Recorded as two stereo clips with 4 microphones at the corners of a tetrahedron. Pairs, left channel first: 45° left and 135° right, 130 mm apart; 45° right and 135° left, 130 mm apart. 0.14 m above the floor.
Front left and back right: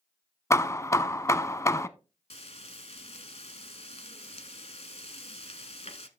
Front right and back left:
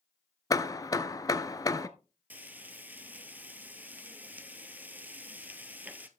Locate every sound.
0.5 s hammering: 10° right, 0.6 m
2.3 s frying: 60° left, 1.0 m